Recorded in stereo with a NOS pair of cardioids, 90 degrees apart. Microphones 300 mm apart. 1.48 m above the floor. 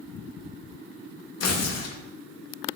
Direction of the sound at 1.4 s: 55° left.